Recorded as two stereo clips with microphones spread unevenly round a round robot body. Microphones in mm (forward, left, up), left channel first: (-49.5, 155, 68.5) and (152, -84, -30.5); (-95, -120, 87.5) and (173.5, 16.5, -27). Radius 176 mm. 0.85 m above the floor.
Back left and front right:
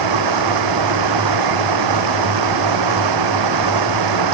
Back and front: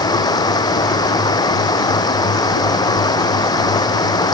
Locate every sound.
0.0 s running water: 75° right